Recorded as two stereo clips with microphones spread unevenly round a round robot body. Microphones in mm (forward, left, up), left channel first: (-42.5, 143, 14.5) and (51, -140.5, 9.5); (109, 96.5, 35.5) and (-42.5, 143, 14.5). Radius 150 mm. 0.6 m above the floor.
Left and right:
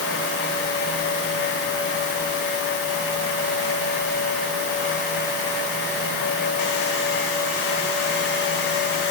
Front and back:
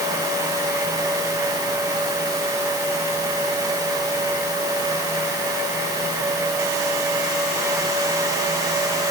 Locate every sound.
Only background noise.